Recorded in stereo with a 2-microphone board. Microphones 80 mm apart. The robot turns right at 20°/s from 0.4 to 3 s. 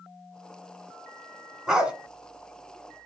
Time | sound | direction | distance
1.7 | a dog barking | 10° right (ahead or behind) | 1.6 m